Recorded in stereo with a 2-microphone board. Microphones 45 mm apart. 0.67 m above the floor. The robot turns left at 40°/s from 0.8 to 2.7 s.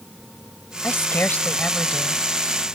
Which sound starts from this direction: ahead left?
A woman speaking, at 0.8 s.